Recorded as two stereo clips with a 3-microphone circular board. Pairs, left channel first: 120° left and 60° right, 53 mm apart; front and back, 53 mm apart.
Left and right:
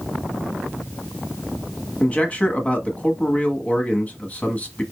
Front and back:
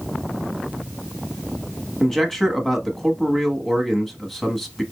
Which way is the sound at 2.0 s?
80° left.